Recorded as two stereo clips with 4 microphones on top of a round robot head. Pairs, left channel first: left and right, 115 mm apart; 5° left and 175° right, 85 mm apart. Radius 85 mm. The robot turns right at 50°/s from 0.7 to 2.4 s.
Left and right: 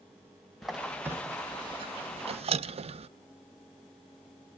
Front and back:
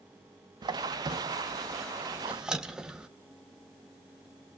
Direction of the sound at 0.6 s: Straight behind.